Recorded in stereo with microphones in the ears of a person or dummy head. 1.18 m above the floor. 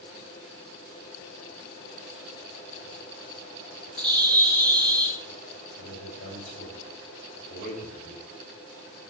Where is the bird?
20° right (ahead or behind), 0.9 m.